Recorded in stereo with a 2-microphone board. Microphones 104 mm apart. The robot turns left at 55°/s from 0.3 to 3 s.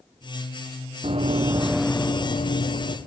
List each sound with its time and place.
1.0 s running footsteps: 65° right (ahead or behind), 1.0 m; by 3.0 s 70° left (ahead or behind), 1.9 m